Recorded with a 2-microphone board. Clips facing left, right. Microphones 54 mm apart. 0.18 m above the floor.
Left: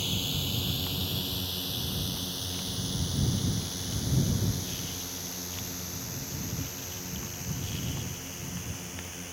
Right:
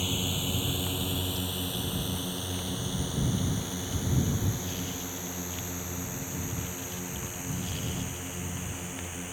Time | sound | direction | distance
0.0 | a drone | 15° right (ahead or behind) | ?